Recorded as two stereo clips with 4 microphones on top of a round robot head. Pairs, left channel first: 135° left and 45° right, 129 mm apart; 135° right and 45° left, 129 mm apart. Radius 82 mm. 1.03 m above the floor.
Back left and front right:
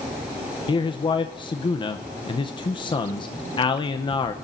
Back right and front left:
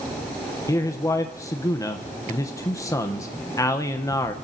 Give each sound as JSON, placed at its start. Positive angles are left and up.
{"t": 0.7, "sound": "a man speaking", "azimuth_deg": 170, "distance_m": 0.8}